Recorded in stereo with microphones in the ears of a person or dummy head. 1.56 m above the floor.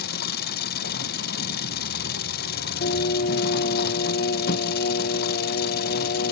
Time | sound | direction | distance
0.0 | an engine running | 55° left (ahead or behind) | ?
2.8 | singing | 40° left (ahead or behind) | ?